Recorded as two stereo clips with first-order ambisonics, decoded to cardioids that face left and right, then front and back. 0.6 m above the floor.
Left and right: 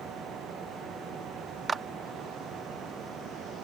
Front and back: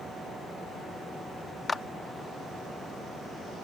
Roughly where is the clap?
Ahead right.